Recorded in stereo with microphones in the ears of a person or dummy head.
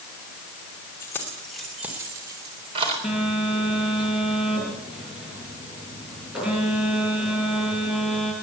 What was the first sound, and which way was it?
Keys jangling, 15° left (ahead or behind).